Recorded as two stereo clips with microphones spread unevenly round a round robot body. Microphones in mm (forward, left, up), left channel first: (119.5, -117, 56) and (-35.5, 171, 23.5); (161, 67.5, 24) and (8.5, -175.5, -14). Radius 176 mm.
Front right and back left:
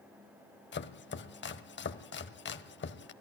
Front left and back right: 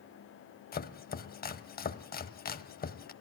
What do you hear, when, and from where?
0.7 s chopping: 5° right, 1.1 m